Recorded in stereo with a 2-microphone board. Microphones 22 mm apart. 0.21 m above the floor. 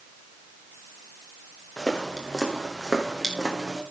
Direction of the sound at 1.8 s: 20° left (ahead or behind).